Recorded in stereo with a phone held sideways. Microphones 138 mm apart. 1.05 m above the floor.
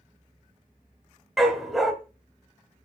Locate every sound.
1.4 s a dog barking: centre (ahead or behind), 1.6 m